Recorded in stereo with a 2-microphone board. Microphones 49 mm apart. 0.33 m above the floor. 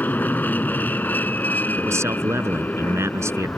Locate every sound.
0.0 s an aircraft: 40° left (ahead or behind)
1.8 s a man speaking: 70° right (ahead or behind)